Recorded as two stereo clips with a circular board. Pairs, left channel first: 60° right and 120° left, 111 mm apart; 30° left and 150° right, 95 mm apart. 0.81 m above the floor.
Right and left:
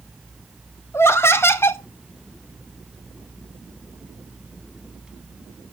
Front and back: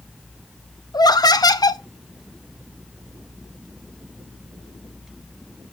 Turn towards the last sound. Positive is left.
turn(degrees=0)